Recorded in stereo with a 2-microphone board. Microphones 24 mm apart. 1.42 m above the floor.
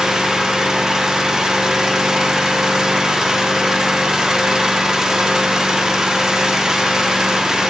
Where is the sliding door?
I don't hear a sliding door.